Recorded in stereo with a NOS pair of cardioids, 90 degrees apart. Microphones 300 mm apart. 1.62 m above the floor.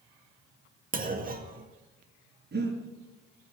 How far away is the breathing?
About 6 m.